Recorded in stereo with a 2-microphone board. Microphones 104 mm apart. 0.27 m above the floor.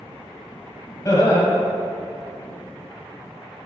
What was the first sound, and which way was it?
Laughter, 40° left (ahead or behind).